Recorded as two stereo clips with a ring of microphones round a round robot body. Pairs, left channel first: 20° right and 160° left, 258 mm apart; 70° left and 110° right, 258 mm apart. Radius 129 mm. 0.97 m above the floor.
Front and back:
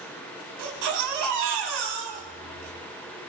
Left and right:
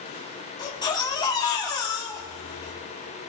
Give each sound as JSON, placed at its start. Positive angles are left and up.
{"t": 0.6, "sound": "a baby crying", "azimuth_deg": 140, "distance_m": 3.5}